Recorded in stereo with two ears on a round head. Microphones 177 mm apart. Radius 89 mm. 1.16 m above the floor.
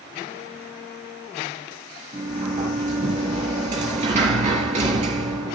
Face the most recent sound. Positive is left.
turn(degrees=-40)  # may be behind; listen again after turning